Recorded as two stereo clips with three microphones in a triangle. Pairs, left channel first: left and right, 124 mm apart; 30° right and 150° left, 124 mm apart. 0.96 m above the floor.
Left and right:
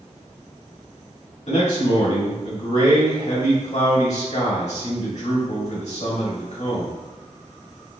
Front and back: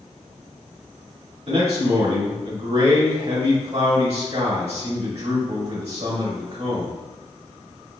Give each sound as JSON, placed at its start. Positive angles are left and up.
{"t": 1.5, "sound": "a man speaking", "azimuth_deg": 115, "distance_m": 1.8}